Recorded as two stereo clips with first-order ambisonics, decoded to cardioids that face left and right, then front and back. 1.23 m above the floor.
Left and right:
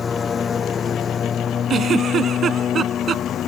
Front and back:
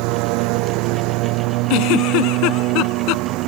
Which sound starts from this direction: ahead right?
A giggle, at 1.7 s.